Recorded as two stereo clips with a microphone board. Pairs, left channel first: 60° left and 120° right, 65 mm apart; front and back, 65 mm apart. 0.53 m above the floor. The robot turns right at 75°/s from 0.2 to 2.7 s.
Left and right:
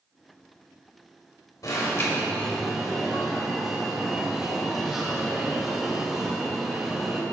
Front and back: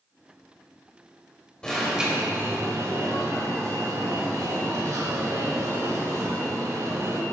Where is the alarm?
75° left, 2.5 m; by 7.2 s 155° left, 2.5 m.